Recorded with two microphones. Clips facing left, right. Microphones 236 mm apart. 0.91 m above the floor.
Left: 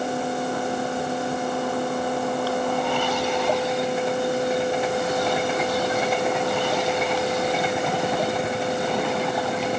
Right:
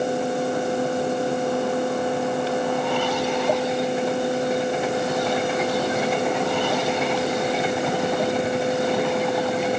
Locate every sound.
Only background noise.